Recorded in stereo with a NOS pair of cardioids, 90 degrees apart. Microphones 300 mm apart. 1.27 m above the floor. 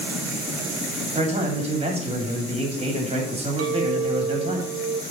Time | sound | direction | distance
1.1 | a man speaking | 20° right | 2.5 m
3.6 | a clink | 50° right | 1.0 m